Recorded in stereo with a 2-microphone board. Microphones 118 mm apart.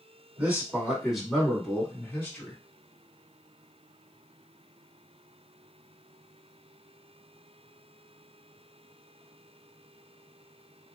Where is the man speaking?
15° right (ahead or behind), 1.8 m; by 2.6 s 20° left (ahead or behind), 1.7 m.